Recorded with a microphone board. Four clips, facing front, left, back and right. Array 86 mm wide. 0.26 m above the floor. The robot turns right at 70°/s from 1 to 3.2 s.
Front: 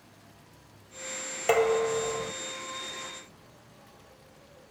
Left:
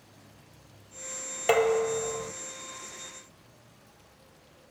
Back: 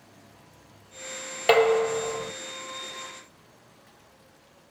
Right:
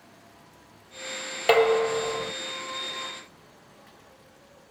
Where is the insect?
165° left, 9.5 m; by 4.7 s 40° right, 9.5 m.